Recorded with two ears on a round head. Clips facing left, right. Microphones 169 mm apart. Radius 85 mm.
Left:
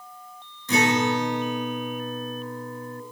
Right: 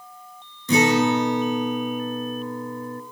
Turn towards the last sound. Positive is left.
turn(degrees=-85)